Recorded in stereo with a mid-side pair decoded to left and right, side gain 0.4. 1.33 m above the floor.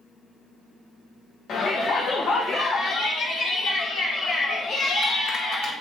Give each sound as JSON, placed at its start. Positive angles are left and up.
{"t": 1.5, "sound": "a shout", "azimuth_deg": 65, "distance_m": 1.1}